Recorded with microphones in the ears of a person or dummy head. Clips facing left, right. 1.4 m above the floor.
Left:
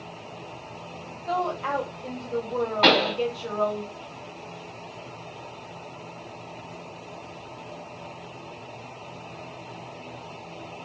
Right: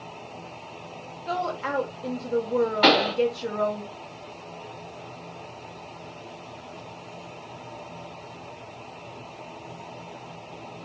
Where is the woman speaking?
20° right (ahead or behind), 0.6 m.